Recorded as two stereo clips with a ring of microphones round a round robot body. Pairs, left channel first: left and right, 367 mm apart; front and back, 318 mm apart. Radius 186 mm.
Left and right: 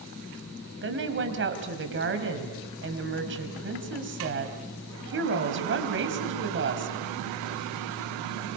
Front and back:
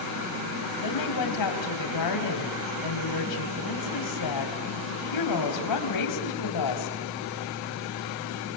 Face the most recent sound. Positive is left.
turn(degrees=-30)